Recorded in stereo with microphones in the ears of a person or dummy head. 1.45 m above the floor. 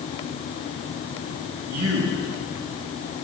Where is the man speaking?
85° right, 2.5 m.